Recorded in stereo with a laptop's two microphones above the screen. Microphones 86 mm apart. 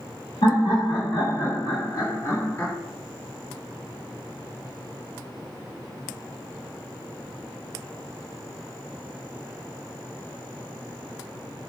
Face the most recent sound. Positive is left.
turn(degrees=15)  # may be behind; listen again after turning